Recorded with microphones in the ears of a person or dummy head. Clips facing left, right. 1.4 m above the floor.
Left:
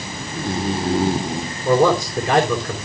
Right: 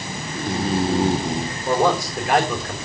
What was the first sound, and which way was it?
A man speaking, 75° left (ahead or behind).